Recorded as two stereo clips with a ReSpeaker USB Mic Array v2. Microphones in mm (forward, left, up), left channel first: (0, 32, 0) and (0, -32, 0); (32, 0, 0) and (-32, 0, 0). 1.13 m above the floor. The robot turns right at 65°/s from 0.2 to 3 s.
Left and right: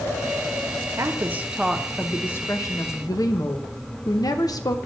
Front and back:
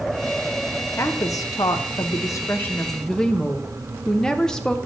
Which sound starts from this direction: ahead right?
A woman speaking, at 1.0 s.